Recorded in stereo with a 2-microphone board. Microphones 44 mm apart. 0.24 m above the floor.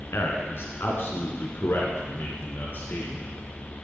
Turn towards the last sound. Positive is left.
turn(degrees=50)  # may be behind; listen again after turning